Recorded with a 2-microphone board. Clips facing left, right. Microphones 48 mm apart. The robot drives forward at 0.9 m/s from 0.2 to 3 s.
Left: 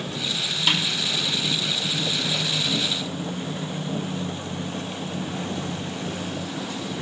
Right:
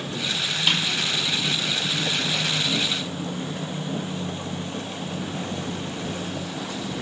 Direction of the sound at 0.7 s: Centre (ahead or behind).